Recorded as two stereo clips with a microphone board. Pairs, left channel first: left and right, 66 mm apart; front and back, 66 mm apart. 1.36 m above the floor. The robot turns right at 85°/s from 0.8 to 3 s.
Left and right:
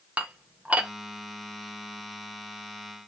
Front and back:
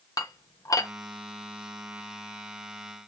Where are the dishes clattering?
20° right, 1.1 m; by 0.9 s 10° right, 1.1 m.